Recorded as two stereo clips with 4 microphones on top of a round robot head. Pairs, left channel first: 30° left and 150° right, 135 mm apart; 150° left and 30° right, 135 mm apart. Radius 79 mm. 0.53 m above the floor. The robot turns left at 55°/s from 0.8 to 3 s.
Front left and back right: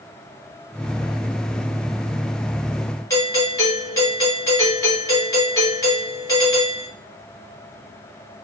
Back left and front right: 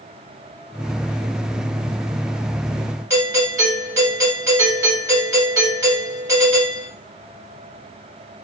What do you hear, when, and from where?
3.1 s a doorbell: 5° left, 1.9 m